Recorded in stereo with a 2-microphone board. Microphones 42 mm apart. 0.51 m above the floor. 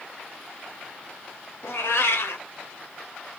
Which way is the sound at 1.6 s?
70° left (ahead or behind).